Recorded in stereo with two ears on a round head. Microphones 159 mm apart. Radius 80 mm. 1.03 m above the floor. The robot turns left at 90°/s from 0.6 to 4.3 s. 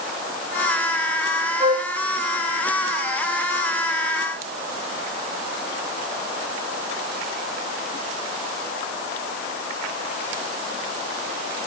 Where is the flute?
20° right (ahead or behind), 1.6 m; by 1.9 s 45° right (ahead or behind), 1.6 m.